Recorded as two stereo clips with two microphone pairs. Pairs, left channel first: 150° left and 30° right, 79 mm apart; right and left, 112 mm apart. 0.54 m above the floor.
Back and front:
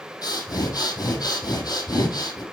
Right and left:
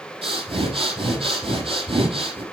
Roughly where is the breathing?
Behind left.